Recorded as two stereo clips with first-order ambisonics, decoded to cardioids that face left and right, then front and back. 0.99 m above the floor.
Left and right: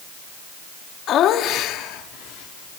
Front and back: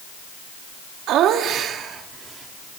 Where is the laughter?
140° left, 2.5 m; by 2.8 s 105° left, 3 m.